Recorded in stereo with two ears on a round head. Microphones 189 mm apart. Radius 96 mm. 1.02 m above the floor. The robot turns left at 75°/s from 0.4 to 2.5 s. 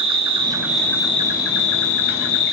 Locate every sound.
0.0 s an insect: 150° right, 1.2 m; by 2.5 s 50° left, 1.2 m